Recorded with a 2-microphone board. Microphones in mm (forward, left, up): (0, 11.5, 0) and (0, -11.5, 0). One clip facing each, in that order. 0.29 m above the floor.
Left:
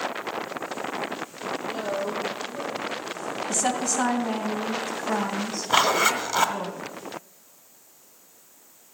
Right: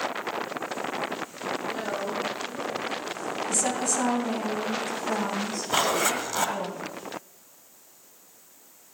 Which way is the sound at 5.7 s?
25° left (ahead or behind).